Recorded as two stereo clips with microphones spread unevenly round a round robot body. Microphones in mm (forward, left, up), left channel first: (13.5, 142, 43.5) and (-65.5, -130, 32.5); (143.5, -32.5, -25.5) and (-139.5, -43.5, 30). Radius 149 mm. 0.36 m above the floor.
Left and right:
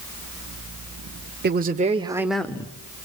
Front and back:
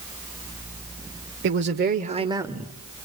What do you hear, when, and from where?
1.4 s a man speaking: 135° right, 1.1 m; by 2.7 s 40° left, 0.8 m